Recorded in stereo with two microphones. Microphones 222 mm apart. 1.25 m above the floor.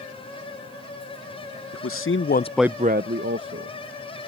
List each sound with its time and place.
1.7 s a man speaking: 80° left; by 3.8 s 65° right (ahead or behind)